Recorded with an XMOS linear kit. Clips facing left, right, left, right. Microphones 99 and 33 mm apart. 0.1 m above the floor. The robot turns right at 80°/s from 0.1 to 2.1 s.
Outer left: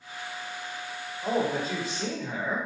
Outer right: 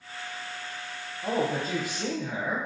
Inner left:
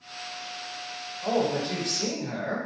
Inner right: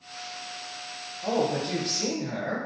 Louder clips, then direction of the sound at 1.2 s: Outer left 1 dB, even; centre (ahead or behind).